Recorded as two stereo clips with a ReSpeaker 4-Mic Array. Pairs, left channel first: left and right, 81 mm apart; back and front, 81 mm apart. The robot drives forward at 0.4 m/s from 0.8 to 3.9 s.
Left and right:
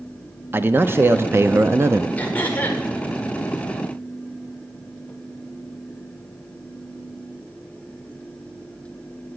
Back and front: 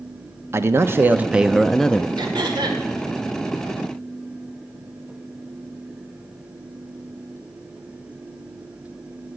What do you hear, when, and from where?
0.5 s a man speaking: 40° right, 0.7 m; by 2.1 s 120° right, 0.6 m
2.2 s throat clearing: 20° left, 1.9 m; by 2.8 s 25° left, 1.7 m